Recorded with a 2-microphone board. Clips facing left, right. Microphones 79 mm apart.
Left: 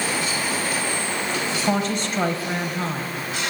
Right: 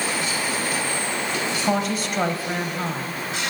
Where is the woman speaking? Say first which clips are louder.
Even; 5° right (ahead or behind), 0.9 m.